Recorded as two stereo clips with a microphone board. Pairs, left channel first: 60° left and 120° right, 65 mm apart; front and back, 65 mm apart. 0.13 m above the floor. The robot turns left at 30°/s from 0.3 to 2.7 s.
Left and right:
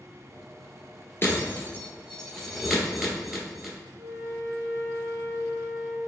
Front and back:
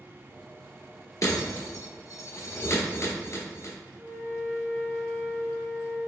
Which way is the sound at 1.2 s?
10° left.